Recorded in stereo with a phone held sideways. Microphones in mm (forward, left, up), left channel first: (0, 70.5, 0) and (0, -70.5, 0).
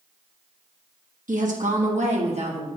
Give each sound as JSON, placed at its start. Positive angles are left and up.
{"t": 1.3, "sound": "a woman speaking", "side_deg": -65, "distance_m": 1.7}